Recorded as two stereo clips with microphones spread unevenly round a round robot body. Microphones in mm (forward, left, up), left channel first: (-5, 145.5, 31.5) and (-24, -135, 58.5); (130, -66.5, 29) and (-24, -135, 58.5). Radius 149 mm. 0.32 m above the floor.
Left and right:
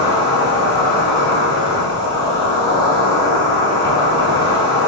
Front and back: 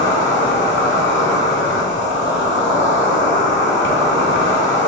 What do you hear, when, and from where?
0.0 s an insect: 10° left, 0.8 m